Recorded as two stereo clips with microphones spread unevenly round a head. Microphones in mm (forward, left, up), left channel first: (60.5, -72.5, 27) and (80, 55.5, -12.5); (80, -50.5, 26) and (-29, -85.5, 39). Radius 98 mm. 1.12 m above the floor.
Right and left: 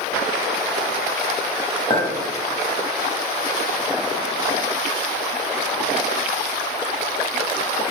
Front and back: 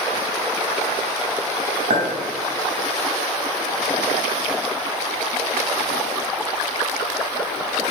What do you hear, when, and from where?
1.9 s a clink: 170° right, 0.9 m